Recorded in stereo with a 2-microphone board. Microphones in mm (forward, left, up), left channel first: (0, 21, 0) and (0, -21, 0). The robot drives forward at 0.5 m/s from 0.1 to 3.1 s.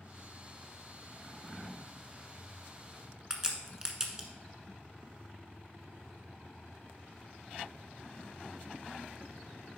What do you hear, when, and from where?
3.3 s a crack: 15° right (ahead or behind), 1.2 m